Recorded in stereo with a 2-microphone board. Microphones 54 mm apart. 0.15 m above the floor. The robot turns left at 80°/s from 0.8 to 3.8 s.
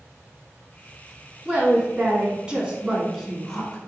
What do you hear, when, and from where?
1.4 s a woman speaking: 15° right (ahead or behind), 1.0 m; by 3.8 s 15° left (ahead or behind), 1.0 m